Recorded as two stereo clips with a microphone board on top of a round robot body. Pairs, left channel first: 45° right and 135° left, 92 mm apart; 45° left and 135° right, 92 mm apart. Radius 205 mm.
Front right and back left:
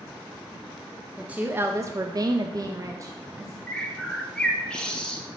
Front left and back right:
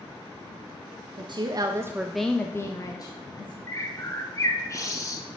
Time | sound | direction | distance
1.2 | a woman speaking | 150° right | 0.7 m
3.7 | a bird | 30° left | 0.9 m